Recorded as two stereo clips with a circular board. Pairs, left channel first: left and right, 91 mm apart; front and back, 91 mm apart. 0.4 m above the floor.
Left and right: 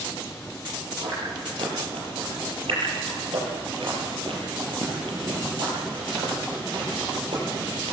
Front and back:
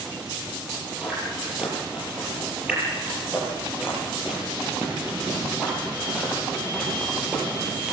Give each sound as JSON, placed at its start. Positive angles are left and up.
{"t": 1.0, "sound": "chewing", "azimuth_deg": -100, "distance_m": 8.0}